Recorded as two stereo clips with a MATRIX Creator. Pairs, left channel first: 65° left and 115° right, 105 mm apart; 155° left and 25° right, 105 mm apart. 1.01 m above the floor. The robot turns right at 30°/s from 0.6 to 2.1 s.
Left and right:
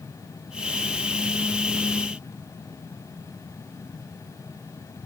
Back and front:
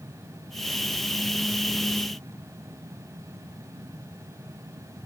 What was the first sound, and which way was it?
Only background noise.